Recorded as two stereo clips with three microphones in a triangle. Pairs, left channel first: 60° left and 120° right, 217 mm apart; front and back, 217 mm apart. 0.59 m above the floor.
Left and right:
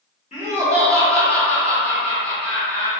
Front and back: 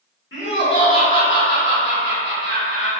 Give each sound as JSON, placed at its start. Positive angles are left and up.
{"t": 0.3, "sound": "laughter", "azimuth_deg": 5, "distance_m": 1.1}